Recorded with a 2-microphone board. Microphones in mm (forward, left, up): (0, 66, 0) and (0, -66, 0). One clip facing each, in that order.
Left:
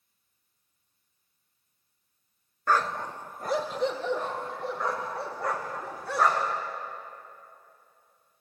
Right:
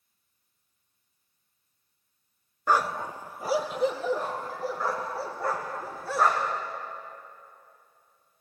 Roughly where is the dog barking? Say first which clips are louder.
Right 1 dB; centre.